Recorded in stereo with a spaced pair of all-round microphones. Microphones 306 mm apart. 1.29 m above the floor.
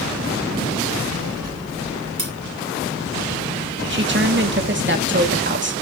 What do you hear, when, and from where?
0.9 s a child speaking: 55° right (ahead or behind), 8 m; by 2.1 s 50° right (ahead or behind), 8.5 m
2.2 s cutlery clinking: 70° right (ahead or behind), 3.5 m
3.9 s a woman speaking: 35° right (ahead or behind), 2 m